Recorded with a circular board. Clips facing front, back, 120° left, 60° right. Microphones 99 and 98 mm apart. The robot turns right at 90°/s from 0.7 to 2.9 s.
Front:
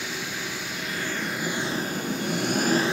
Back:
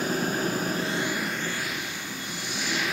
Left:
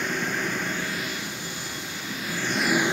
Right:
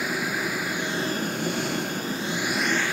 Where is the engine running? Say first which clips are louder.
Back 7 dB, even; 140° right, 0.7 m; by 2.9 s 55° left, 0.7 m.